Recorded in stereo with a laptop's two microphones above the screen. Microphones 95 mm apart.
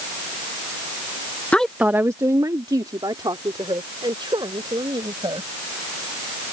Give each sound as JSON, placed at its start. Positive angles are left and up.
{"t": 1.5, "sound": "a woman speaking", "side_deg": 15}